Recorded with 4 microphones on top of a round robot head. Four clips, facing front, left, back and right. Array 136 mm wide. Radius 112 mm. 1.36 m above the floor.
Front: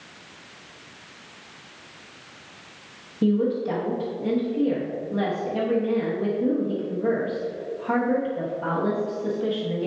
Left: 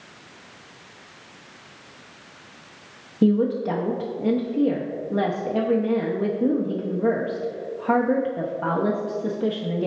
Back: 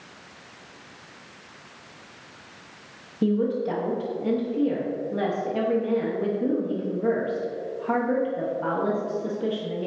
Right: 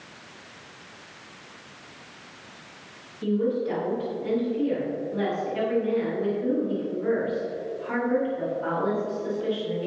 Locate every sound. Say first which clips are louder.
3.2 s a woman speaking: left 5 dB, front 1 dB; 95° left, 1.1 m